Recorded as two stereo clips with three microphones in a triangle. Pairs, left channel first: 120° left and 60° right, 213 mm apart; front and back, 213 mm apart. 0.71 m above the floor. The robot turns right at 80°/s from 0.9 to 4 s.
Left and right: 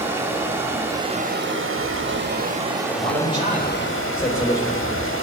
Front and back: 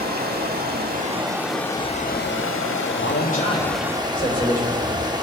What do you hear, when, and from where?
0.0 s running water: 140° right, 0.9 m; by 5.2 s 110° left, 0.9 m
3.0 s a man speaking: 35° right, 3.5 m; by 4.9 s 45° left, 3.5 m